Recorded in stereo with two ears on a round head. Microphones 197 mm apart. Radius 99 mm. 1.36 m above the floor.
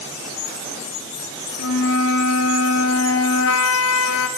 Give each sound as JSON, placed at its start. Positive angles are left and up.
{"t": 1.6, "sound": "a flute", "side_deg": 65, "distance_m": 2.5}